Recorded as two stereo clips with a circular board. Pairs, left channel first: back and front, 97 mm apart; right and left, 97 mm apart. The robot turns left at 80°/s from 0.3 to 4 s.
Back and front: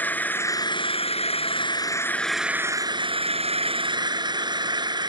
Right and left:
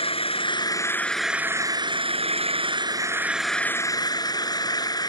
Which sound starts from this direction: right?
An engine running, at 0.0 s.